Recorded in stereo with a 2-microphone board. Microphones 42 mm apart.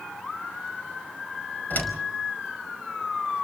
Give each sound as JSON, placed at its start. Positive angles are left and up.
{"t": 1.7, "sound": "a door slam", "side_deg": 40, "distance_m": 5.0}